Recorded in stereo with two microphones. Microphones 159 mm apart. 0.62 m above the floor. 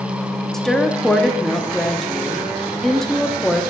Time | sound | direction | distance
0.5 | a woman speaking | centre (ahead or behind) | 0.6 m